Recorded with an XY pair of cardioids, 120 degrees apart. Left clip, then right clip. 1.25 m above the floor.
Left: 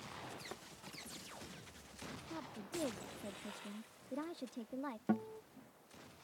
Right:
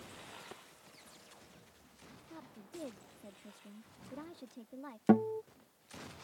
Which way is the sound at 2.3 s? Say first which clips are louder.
Left 4 dB; 25° left.